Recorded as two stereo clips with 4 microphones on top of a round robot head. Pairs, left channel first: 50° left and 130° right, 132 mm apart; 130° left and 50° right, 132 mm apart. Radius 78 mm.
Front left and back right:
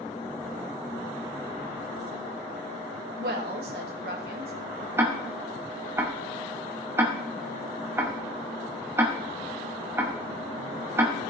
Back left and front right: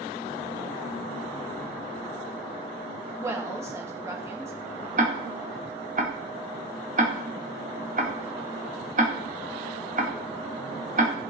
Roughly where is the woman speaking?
Behind right.